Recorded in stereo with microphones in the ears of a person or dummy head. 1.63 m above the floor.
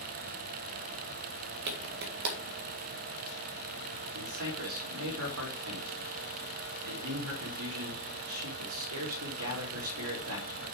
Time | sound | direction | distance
1.7 | a clap | 60° right (ahead or behind) | 1.8 m
4.1 | a man speaking | 65° right (ahead or behind) | 3.5 m